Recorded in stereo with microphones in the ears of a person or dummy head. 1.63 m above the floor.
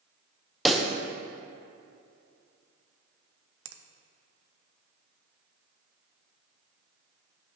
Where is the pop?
Centre (ahead or behind), 0.7 m.